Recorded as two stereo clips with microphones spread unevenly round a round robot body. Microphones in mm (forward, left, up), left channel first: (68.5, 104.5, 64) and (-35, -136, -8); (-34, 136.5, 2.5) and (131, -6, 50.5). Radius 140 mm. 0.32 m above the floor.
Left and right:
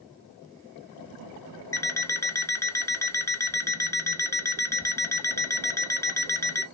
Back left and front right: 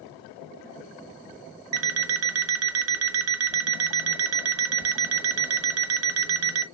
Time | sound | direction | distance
1.7 | an alarm clock | 20° right | 0.5 m